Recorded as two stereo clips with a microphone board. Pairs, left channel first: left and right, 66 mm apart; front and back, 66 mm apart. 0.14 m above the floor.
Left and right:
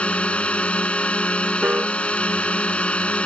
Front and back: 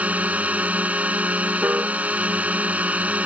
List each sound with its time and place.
0.0 s a drone: 140° left
1.6 s a piano: 140° right